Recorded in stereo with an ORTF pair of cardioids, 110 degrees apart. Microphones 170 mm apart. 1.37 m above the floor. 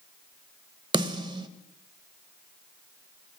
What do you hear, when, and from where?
0.9 s a snare drum: 25° right, 1.0 m